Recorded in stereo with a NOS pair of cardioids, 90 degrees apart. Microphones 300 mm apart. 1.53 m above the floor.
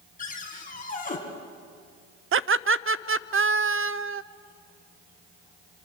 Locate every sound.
0.2 s a cupboard door: 30° left, 4 m
2.3 s laughter: 45° right, 0.6 m